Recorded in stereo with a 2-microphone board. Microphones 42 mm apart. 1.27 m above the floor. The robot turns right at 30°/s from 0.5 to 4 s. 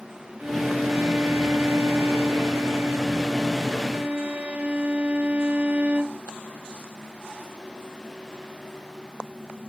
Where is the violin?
145° right, 0.8 m; by 6.2 s 40° right, 0.8 m.